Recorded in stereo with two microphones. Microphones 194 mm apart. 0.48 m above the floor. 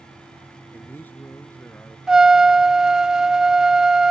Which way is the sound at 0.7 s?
10° left (ahead or behind).